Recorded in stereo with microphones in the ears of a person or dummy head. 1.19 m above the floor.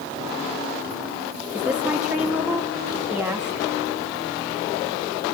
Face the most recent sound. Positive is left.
turn(degrees=-5)  # may be behind; listen again after turning